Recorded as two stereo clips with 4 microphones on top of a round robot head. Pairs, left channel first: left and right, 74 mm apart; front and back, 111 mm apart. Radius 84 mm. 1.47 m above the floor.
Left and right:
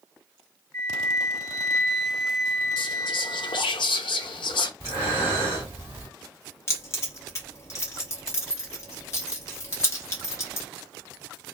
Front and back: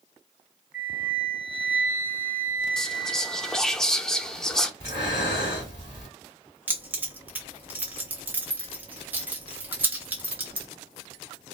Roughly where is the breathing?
Ahead right.